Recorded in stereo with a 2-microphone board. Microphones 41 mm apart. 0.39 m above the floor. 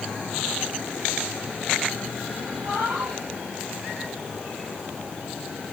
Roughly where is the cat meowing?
Right.